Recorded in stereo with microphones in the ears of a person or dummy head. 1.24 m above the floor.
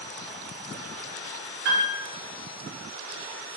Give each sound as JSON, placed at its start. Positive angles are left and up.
{"t": 1.6, "sound": "a piano", "side_deg": -60, "distance_m": 0.9}